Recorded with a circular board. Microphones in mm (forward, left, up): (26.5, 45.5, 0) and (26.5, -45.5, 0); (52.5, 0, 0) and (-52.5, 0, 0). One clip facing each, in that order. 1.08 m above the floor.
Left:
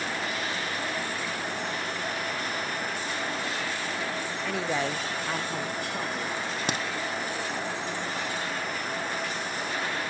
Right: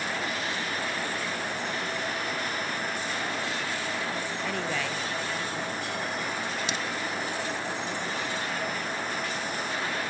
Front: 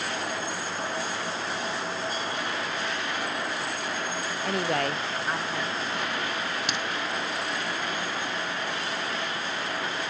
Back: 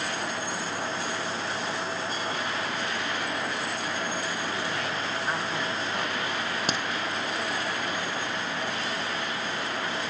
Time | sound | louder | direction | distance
4.5 | a woman speaking | left 4 dB, front 4 dB | 5° right | 0.7 m
6.7 | a crack | left 2 dB, back 1 dB | 130° left | 0.9 m